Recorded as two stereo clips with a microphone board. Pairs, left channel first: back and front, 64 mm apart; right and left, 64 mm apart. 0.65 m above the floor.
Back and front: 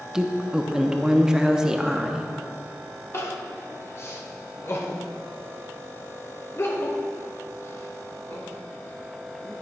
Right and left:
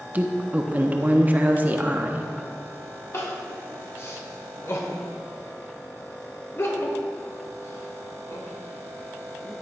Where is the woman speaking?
70° left, 0.6 m.